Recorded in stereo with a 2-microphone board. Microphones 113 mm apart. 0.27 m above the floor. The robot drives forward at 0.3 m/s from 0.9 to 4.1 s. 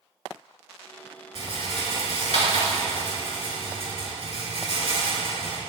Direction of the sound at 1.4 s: 70° left (ahead or behind).